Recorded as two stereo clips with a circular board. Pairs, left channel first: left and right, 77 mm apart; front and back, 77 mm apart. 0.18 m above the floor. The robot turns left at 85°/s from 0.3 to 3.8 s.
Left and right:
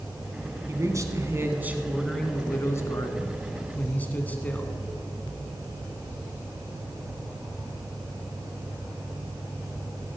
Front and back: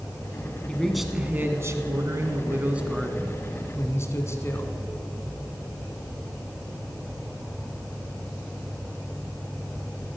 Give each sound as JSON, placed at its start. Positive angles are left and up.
{"t": 0.7, "sound": "a man speaking", "azimuth_deg": -65, "distance_m": 1.6}